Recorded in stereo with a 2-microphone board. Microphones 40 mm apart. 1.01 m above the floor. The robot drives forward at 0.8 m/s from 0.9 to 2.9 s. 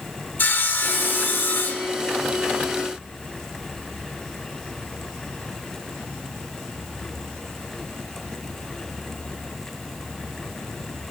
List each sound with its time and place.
0.4 s sawing: 60° left (ahead or behind), 1.1 m; by 1.9 s 55° left (ahead or behind), 1.1 m